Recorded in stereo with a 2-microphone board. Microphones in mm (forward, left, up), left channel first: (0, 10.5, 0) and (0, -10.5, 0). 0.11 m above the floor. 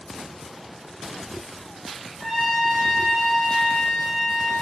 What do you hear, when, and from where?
2.2 s a trumpet: 20° right (ahead or behind), 6.5 m